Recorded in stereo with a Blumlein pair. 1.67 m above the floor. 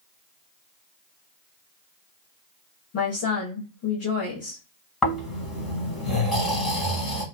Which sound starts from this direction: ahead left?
A woman speaking, at 2.9 s.